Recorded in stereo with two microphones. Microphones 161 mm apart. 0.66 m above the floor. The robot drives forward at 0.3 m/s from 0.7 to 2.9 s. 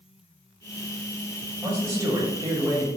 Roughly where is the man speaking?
Centre.